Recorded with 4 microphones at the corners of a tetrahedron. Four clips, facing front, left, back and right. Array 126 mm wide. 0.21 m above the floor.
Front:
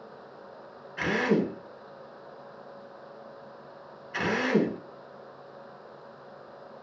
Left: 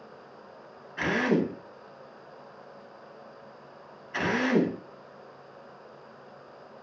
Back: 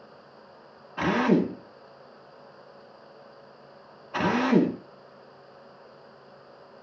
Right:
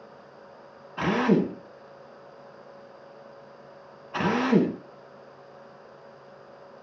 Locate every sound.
1.0 s a drill: 140° right, 1.0 m